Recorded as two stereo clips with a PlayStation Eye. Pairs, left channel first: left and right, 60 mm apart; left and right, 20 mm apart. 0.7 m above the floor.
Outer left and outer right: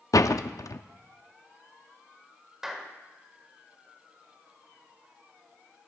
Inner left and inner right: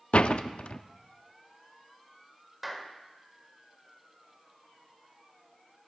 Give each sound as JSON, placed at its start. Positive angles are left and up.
{"t": 0.1, "sound": "a door slam", "side_deg": 65, "distance_m": 0.5}
{"t": 2.6, "sound": "a clap", "side_deg": -5, "distance_m": 1.6}